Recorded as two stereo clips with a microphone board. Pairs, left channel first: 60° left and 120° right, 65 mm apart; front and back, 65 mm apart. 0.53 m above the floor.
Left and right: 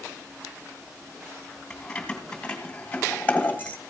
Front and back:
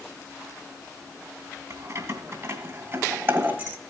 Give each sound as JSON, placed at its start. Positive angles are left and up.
{"t": 1.7, "sound": "keys jangling", "azimuth_deg": 140, "distance_m": 3.0}